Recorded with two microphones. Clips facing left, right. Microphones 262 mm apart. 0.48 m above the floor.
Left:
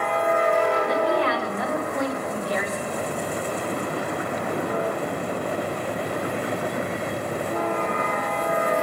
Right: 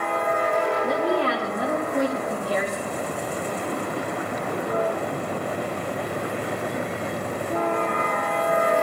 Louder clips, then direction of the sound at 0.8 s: Even; 30° right (ahead or behind).